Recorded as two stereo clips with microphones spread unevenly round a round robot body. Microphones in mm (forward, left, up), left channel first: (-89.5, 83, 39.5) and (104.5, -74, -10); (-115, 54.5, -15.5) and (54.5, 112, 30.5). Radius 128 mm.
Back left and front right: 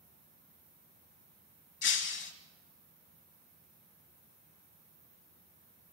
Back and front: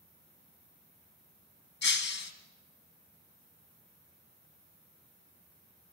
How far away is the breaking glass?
About 2 m.